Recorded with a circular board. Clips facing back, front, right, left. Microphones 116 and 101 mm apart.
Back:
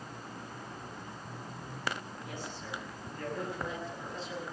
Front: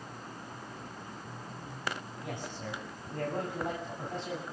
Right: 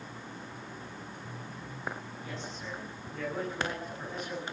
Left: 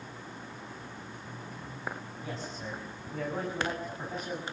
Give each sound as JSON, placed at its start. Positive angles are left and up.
{"t": 2.2, "sound": "a man speaking", "azimuth_deg": 35, "distance_m": 7.5}